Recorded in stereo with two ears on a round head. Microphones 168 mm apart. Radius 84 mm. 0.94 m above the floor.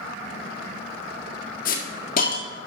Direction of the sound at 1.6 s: 50° left (ahead or behind).